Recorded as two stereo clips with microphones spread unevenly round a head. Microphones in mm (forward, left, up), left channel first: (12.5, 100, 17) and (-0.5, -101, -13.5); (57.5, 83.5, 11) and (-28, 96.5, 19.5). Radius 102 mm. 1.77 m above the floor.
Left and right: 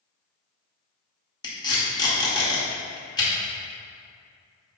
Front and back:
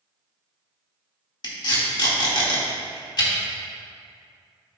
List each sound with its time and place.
1.4 s tape being pulled: 20° left, 2.0 m